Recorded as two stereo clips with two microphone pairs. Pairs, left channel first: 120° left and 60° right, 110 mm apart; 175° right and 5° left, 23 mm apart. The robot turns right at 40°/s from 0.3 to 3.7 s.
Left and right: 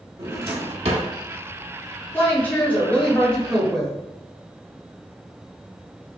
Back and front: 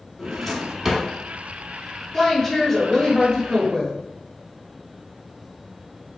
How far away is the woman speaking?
About 0.9 m.